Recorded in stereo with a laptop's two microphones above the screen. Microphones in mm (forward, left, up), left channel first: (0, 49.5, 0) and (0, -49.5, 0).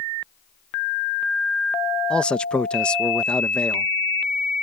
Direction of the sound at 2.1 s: 10° left (ahead or behind).